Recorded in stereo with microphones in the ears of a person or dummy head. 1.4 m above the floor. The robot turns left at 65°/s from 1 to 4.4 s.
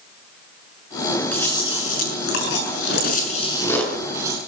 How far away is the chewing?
About 6 m.